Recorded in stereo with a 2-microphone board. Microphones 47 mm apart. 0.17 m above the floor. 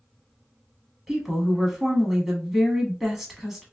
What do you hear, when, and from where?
1.1 s a woman speaking: 5° right (ahead or behind), 1.0 m